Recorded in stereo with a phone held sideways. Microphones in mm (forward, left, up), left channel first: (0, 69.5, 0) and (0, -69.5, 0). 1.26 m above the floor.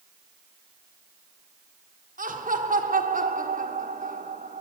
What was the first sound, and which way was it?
Laughter, 75° right (ahead or behind).